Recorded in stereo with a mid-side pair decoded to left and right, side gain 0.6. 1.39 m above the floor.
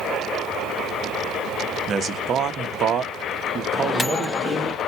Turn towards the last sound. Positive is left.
turn(degrees=25)